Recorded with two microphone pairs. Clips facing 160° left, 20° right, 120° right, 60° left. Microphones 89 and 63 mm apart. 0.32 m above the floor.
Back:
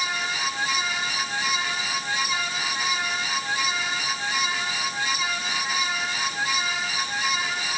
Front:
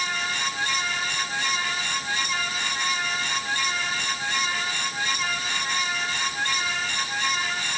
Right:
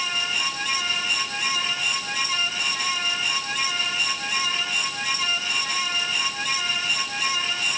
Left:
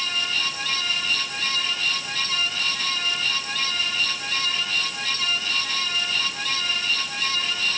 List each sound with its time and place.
Only background noise.